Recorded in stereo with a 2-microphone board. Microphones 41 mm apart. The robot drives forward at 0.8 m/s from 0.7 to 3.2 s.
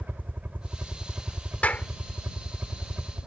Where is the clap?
40° left (ahead or behind); by 1.9 s 35° left (ahead or behind).